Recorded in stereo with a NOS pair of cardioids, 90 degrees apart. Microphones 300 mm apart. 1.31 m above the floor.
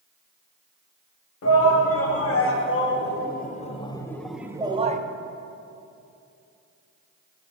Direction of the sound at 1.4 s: 55° left.